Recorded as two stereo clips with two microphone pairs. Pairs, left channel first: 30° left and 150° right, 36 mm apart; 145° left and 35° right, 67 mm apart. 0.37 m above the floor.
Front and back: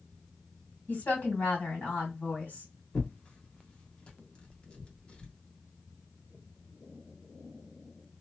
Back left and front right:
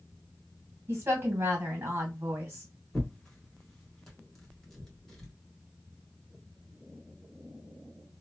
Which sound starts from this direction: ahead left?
Tearing paper, at 2.9 s.